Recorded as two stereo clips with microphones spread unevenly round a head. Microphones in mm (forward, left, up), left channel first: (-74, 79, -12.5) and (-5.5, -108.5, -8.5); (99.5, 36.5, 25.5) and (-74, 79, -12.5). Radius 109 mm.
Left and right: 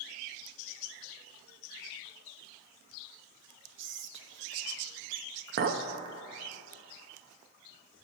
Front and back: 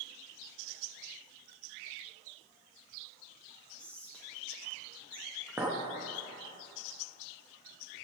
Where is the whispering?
100° right, 0.8 m.